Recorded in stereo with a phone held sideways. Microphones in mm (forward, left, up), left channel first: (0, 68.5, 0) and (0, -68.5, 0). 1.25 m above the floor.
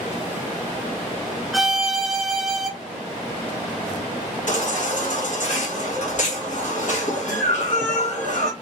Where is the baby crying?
65° left (ahead or behind), 1.3 m.